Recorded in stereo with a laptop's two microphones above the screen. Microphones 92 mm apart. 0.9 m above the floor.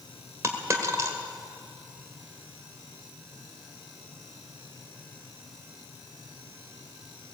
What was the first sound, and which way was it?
A dropped coin, 35° right (ahead or behind).